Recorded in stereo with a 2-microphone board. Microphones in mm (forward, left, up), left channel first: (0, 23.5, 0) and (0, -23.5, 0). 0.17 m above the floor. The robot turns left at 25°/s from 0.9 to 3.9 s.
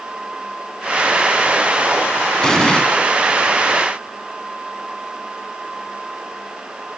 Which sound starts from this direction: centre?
An explosion, at 2.4 s.